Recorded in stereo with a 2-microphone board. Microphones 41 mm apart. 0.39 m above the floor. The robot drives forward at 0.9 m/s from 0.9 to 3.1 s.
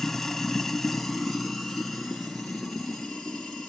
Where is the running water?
10° left (ahead or behind), 0.8 m; by 3.7 s 5° left (ahead or behind), 3 m.